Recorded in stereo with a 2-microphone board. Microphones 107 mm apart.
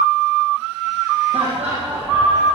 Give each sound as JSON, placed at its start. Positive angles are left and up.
{"t": 1.3, "sound": "laughter", "side_deg": -75, "distance_m": 9.5}